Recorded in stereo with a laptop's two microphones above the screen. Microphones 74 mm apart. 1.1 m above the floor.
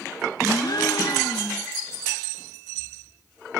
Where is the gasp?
60° left (ahead or behind), 0.9 m.